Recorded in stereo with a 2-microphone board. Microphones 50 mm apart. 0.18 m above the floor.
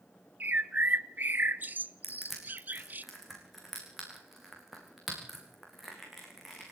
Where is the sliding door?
No sliding door in this recording.